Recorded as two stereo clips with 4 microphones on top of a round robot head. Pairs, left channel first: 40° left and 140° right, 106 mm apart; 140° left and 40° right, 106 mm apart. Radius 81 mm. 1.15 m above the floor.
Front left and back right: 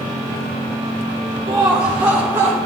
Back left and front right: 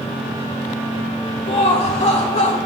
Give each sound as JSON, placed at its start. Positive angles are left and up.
{"t": 1.5, "sound": "laughter", "azimuth_deg": 170, "distance_m": 0.7}